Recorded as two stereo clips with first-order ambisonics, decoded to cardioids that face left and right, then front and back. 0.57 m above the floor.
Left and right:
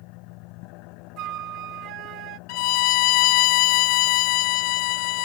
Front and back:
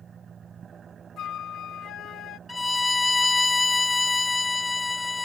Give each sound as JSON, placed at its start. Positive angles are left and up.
{"t": 0.0, "sound": "an engine running", "azimuth_deg": 115}
{"t": 1.2, "sound": "a flute", "azimuth_deg": -55}
{"t": 2.5, "sound": "a violin", "azimuth_deg": 80}